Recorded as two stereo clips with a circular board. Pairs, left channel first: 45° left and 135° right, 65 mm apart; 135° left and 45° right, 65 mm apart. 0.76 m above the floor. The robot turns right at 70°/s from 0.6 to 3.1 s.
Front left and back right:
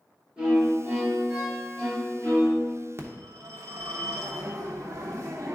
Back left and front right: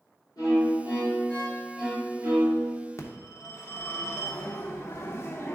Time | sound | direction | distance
0.4 | a violin | 150° left | 3 m
3.0 | a phone ringing | straight behind | 0.9 m